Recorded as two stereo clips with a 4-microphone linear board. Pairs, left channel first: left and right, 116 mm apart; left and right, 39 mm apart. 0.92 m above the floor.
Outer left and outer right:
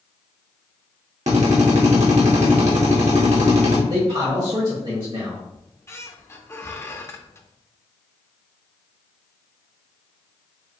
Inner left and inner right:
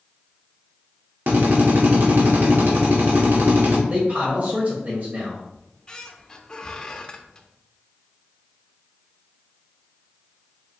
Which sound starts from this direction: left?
A squeak, at 5.5 s.